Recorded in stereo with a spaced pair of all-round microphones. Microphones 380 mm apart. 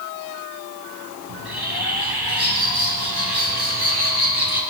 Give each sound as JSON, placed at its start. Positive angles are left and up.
{"t": 1.3, "sound": "a bird", "side_deg": -85, "distance_m": 6.0}